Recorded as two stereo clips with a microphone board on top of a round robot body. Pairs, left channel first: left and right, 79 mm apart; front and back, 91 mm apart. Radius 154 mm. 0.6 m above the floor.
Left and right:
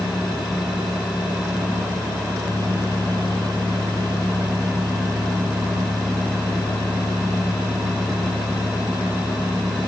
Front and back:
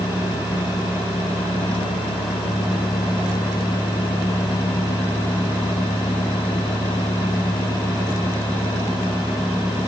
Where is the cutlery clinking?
No cutlery clinking in this recording.